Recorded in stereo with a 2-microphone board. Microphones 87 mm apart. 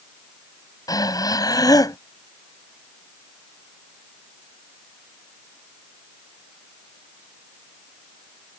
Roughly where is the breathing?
Left.